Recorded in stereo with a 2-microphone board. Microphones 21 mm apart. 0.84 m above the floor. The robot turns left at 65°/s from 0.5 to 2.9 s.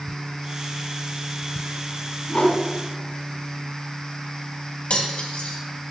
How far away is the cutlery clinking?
About 3 m.